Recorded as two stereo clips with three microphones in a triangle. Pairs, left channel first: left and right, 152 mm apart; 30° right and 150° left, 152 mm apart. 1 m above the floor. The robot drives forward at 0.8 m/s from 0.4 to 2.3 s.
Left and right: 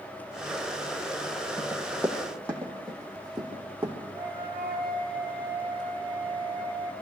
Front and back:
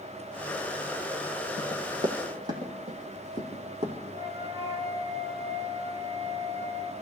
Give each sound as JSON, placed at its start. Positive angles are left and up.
{"t": 1.6, "sound": "running footsteps", "azimuth_deg": 155, "distance_m": 2.5}
{"t": 4.1, "sound": "a flute", "azimuth_deg": 100, "distance_m": 1.6}